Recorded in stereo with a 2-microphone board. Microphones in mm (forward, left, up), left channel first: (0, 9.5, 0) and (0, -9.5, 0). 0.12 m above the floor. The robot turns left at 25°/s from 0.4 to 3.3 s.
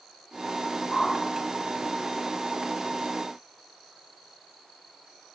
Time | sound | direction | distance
0.9 | a whoosh | 40° left (ahead or behind) | 8 m